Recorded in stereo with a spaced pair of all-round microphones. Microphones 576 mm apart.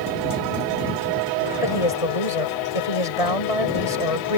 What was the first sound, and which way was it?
A woman speaking, 75° left (ahead or behind).